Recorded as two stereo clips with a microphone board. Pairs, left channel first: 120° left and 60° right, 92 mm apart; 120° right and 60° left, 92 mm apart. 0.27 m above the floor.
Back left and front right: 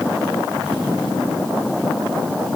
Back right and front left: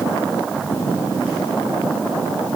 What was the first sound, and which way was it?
Only background noise.